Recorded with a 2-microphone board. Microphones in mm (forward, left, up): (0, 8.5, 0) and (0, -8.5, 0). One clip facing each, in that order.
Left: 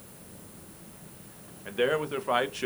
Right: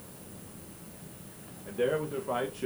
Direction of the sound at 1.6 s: 65° left (ahead or behind).